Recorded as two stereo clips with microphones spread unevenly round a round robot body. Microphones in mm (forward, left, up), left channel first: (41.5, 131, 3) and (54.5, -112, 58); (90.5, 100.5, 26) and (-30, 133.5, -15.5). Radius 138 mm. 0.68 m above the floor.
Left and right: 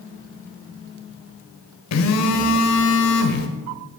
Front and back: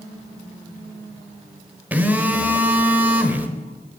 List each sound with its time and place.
1.9 s a phone buzzing: 85° left, 1.1 m